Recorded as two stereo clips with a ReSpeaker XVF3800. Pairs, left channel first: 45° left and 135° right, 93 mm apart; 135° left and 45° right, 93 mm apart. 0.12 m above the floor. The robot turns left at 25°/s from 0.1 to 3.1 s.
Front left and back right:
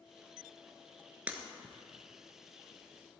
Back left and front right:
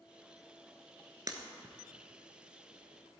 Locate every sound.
1.3 s breaking glass: 70° right, 1.0 m; by 1.8 s 80° right, 1.0 m